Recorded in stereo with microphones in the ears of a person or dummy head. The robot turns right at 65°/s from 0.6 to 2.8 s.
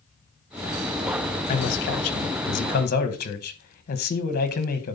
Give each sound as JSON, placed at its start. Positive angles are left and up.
{"t": 1.5, "sound": "a man speaking", "azimuth_deg": 45, "distance_m": 1.2}